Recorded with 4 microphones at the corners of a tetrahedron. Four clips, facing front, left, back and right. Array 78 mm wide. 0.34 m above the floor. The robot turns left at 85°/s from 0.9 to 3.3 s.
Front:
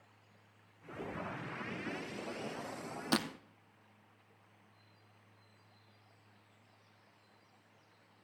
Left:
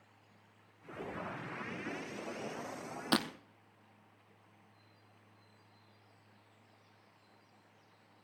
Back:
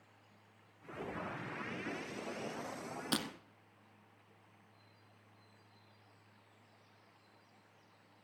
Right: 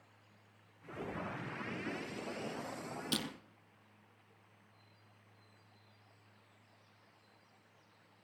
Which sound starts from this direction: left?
Breaking glass, at 3.1 s.